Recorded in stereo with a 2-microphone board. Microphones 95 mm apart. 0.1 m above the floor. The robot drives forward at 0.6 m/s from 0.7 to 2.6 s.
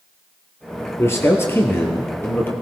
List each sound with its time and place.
1.0 s a man speaking: 30° left (ahead or behind), 2 m; by 2.5 s 20° left (ahead or behind), 3 m